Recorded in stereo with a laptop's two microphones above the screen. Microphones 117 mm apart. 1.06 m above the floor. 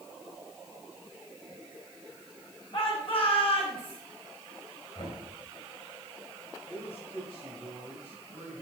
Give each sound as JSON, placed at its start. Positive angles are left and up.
{"t": 2.7, "sound": "a shout", "side_deg": 55, "distance_m": 6.0}
{"t": 5.0, "sound": "knocking", "side_deg": 50, "distance_m": 3.0}
{"t": 6.7, "sound": "a man speaking", "side_deg": 55, "distance_m": 6.5}